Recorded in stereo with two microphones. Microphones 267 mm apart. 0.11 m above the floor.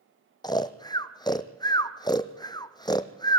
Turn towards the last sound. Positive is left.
turn(degrees=15)  # may be behind; listen again after turning